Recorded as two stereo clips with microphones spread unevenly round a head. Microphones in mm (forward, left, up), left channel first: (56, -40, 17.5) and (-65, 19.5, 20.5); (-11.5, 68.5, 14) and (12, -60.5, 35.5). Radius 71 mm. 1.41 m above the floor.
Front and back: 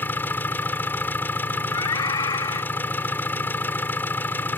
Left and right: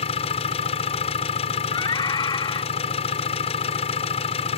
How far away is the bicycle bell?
I don't hear a bicycle bell.